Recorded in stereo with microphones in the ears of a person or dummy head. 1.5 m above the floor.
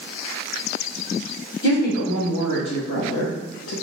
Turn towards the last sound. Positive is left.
turn(degrees=75)  # may be behind; listen again after turning